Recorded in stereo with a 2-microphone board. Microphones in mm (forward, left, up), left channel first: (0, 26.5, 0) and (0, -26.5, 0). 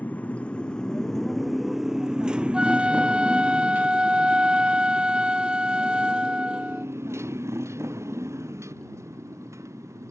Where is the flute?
20° right (ahead or behind).